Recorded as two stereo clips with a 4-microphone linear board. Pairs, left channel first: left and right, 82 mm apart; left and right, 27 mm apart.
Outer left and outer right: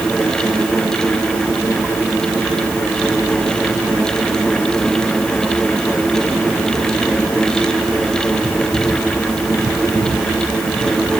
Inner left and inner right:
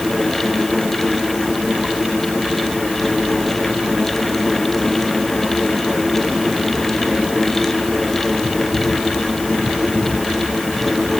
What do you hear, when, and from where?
Only background noise.